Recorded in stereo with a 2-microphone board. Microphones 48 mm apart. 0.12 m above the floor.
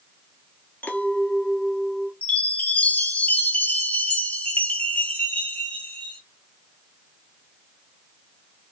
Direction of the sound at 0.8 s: 35° left (ahead or behind).